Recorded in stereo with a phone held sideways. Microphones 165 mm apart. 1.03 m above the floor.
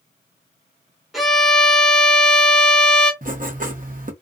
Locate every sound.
1.1 s a violin: centre (ahead or behind), 1.2 m
3.2 s writing: 55° right (ahead or behind), 0.7 m